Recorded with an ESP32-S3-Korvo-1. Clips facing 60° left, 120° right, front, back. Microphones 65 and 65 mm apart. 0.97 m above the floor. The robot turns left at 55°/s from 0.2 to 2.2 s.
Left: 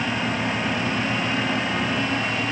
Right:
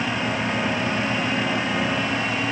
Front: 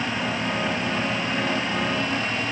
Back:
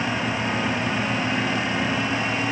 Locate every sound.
Only background noise.